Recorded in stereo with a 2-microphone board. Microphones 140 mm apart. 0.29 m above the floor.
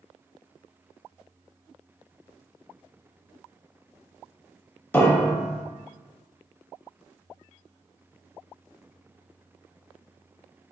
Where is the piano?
15° left (ahead or behind), 0.5 m.